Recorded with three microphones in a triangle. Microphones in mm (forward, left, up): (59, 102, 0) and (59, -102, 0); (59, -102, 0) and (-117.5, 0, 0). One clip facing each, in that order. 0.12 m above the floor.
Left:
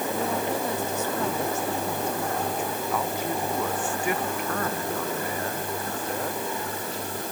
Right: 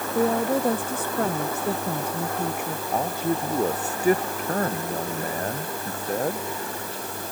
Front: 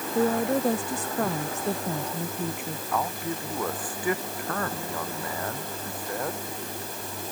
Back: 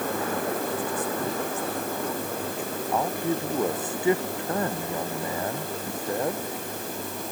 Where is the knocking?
No knocking in this recording.